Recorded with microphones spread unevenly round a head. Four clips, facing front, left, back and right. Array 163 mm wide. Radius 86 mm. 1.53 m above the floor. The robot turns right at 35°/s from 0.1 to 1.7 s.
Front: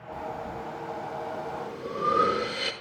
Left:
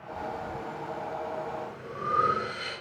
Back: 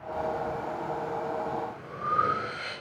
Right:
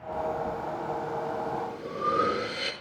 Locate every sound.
0.1 s breathing: 80° right, 6 m; by 2.7 s 25° right, 6 m